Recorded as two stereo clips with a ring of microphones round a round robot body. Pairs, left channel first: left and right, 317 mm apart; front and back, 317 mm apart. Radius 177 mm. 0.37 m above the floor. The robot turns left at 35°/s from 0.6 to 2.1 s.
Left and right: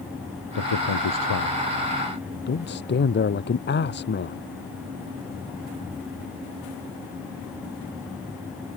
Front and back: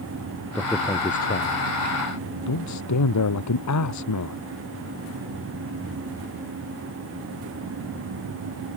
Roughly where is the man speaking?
Left.